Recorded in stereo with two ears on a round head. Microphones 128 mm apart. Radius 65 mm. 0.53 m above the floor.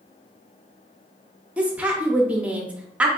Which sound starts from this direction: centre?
A woman speaking, at 1.6 s.